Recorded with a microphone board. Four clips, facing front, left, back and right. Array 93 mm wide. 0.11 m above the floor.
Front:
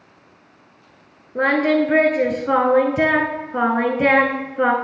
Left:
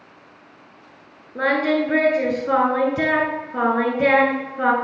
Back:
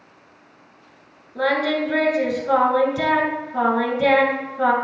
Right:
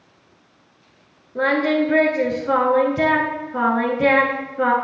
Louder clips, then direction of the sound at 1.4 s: Right 1 dB, front 4 dB; 5° left.